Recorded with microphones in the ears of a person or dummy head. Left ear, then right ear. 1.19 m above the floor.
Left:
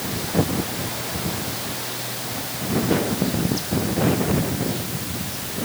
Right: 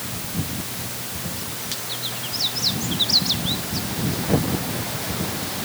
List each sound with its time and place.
Only background noise.